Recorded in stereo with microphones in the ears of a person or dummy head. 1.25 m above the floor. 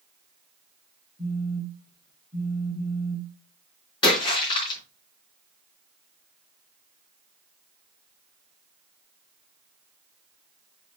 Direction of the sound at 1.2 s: 30° left (ahead or behind).